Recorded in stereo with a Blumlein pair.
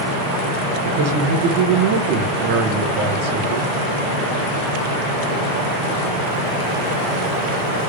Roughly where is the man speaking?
Ahead right.